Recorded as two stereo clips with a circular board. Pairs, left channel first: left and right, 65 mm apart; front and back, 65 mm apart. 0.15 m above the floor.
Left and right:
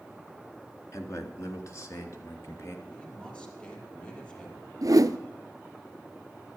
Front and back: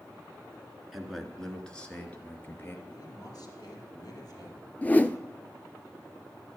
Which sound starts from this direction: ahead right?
A whoosh, at 4.8 s.